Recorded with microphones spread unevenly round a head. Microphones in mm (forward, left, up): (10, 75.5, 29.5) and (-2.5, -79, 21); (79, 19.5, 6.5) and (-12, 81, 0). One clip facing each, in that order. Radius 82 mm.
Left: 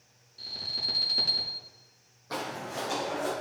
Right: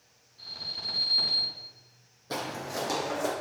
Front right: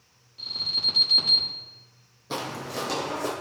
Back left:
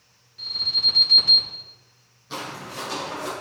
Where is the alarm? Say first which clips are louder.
Left 2 dB, back left 2 dB; 35° left, 3 m.